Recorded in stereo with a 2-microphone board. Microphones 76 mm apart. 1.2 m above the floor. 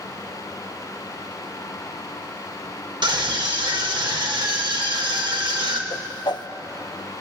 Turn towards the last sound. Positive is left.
turn(degrees=65)  # may be behind; listen again after turning